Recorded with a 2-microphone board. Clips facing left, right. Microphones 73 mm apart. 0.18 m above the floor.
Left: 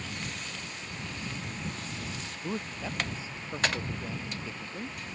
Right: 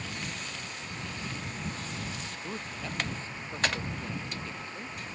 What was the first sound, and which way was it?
A man speaking, 10° left (ahead or behind).